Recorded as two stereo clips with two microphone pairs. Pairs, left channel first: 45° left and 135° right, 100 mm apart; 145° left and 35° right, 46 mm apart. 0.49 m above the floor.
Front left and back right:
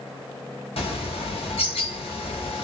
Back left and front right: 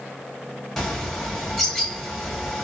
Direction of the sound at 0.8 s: 65° left.